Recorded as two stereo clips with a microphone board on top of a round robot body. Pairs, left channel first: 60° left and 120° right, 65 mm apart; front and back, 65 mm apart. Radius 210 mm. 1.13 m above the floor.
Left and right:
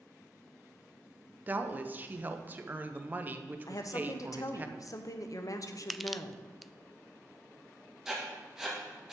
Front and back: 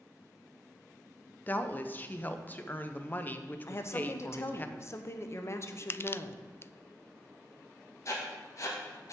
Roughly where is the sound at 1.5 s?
Ahead right.